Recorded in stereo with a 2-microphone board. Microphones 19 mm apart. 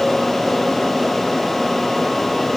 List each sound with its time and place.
Only background noise.